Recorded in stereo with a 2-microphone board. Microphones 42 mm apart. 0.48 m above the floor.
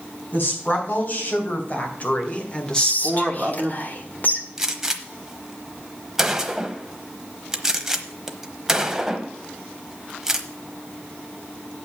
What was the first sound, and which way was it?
A woman speaking, 45° left (ahead or behind).